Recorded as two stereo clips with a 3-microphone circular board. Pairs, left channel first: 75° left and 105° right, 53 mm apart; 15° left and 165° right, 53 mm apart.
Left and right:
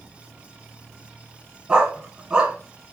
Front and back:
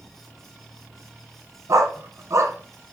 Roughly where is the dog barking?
Behind.